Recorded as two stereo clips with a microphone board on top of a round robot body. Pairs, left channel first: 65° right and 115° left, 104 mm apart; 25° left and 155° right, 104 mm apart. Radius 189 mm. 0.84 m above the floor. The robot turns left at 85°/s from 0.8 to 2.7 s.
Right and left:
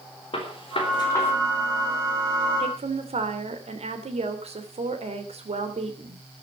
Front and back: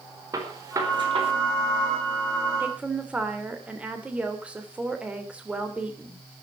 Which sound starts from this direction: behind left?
A woman speaking, at 2.6 s.